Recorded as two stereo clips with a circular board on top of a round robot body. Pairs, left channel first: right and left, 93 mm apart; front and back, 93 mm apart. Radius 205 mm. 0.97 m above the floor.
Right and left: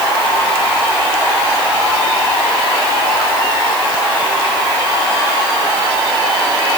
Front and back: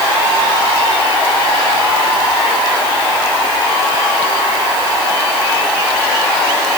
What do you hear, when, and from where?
Only background noise.